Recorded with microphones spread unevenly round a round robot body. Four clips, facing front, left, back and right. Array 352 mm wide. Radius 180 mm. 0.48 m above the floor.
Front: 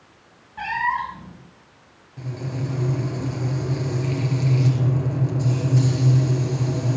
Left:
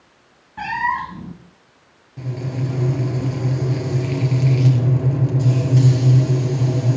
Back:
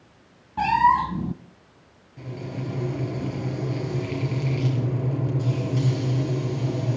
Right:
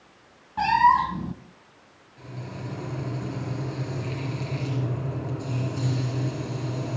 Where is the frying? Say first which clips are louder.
Left 11 dB, front 3 dB; 75° left, 5.5 m.